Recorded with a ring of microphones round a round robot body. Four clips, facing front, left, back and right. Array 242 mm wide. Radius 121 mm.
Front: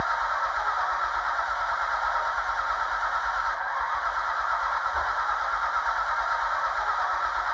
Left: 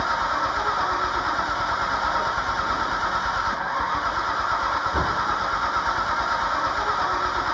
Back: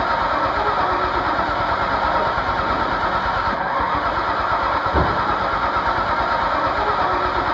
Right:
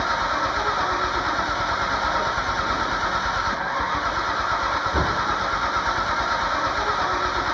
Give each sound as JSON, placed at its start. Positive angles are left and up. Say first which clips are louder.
{"t": 0.0, "sound": "an engine running", "louder": "even, back 8 dB", "azimuth_deg": -170}